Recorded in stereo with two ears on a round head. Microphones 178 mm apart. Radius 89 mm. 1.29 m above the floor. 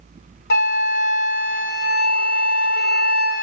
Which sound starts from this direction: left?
A flute, at 0.5 s.